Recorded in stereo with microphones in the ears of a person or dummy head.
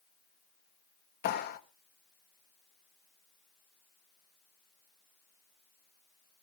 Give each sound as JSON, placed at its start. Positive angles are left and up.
{"t": 1.2, "sound": "a clap", "side_deg": 50, "distance_m": 1.2}